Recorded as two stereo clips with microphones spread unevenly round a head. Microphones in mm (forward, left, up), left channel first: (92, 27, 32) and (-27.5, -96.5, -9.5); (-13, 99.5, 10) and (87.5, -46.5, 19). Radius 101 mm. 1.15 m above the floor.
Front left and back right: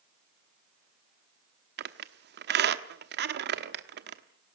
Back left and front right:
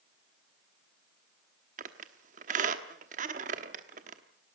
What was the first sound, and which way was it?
A squeak, 105° right.